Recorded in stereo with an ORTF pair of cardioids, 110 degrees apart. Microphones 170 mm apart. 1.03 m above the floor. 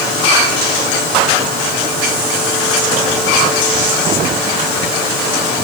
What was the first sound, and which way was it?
Only background noise.